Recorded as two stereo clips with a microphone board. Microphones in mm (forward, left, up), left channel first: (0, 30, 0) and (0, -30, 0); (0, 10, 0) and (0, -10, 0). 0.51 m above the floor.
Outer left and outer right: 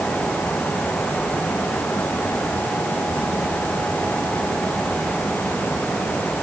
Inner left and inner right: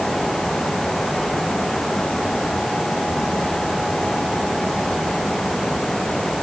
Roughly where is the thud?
I don't hear a thud.